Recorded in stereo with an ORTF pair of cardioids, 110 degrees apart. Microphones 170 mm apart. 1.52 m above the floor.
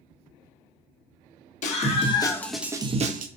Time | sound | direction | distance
1.6 | a scream | 45° left | 1.7 m